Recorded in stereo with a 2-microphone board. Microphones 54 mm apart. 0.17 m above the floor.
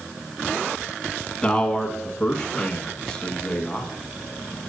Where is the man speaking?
15° left (ahead or behind), 1.1 m.